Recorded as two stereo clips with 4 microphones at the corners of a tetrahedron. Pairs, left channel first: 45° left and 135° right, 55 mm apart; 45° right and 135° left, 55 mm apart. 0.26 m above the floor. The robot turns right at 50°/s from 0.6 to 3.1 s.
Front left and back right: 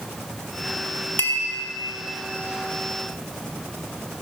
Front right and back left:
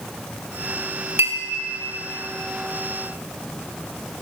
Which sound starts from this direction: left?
A clink, at 1.2 s.